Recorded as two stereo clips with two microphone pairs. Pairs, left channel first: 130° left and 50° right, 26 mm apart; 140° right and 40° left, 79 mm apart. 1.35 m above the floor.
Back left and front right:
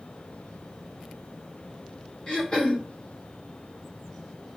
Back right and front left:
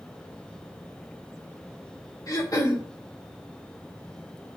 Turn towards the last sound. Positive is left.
turn(degrees=180)